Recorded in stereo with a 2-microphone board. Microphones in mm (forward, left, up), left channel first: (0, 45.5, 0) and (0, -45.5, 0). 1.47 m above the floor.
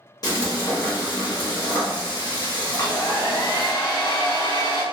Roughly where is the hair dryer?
Left.